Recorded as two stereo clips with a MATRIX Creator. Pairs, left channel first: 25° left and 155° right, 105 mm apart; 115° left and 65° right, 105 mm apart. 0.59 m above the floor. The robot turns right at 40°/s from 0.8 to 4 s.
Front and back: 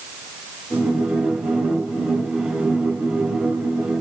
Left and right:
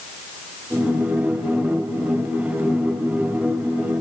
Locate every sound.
Only background noise.